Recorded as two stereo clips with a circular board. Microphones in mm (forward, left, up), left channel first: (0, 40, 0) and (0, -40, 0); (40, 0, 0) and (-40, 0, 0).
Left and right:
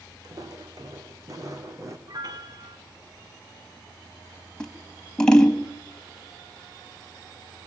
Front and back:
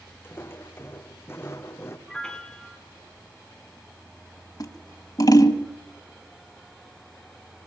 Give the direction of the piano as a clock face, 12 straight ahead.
3 o'clock.